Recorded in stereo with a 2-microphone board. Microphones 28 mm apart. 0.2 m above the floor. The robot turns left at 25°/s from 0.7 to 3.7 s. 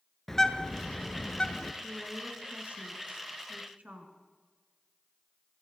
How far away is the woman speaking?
About 2.5 m.